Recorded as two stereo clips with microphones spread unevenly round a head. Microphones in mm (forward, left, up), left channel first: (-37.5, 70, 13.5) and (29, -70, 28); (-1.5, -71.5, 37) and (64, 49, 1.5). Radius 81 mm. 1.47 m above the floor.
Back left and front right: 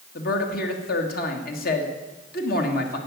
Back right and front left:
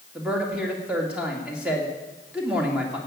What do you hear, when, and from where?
0.1 s a man speaking: 145° left, 2 m